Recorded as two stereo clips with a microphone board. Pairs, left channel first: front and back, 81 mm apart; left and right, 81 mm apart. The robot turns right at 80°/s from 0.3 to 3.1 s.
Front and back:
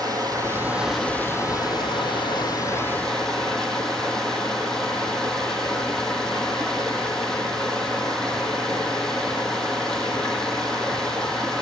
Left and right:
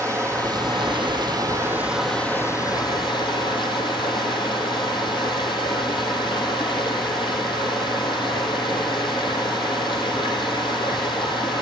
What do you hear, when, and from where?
0.0 s running water: 140° right, 2 m; by 11.6 s 80° left, 2 m